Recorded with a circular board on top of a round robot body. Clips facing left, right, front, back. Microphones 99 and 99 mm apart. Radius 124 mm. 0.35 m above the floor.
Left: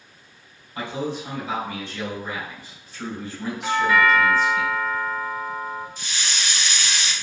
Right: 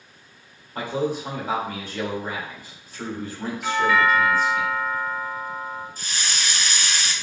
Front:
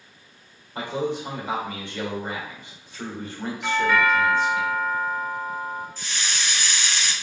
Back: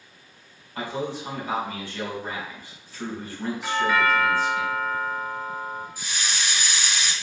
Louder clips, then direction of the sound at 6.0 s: Even, even; 105° right.